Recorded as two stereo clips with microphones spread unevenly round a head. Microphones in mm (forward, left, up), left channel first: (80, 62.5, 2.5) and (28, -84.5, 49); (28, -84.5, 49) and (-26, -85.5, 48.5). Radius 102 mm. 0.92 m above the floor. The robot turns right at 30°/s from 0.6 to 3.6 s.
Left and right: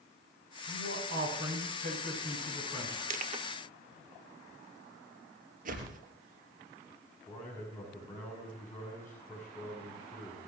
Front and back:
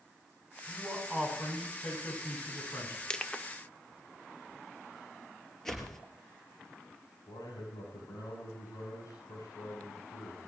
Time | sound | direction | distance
0.7 | a man speaking | 110° right | 9.5 m
3.1 | crushing | 75° right | 1.4 m
5.7 | a whoosh | 80° right | 4 m
7.3 | a man speaking | 5° right | 8 m